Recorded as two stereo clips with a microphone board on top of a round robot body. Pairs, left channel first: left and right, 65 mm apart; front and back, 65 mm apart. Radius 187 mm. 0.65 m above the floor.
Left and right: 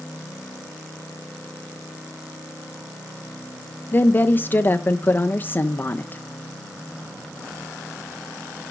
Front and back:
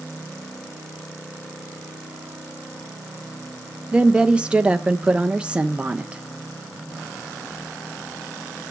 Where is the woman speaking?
120° left, 0.7 m.